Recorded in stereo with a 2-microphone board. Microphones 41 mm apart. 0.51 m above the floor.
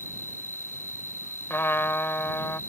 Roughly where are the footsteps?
I don't hear footsteps.